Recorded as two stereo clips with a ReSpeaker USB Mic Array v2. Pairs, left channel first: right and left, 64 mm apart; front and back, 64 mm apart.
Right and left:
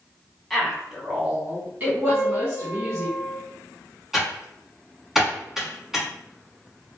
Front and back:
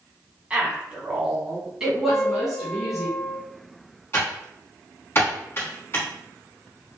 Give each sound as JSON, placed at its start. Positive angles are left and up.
{"t": 0.5, "sound": "a woman speaking", "azimuth_deg": -175, "distance_m": 1.2}
{"t": 2.1, "sound": "a piano", "azimuth_deg": 60, "distance_m": 1.3}
{"t": 4.1, "sound": "typing on a keyboard", "azimuth_deg": 10, "distance_m": 1.3}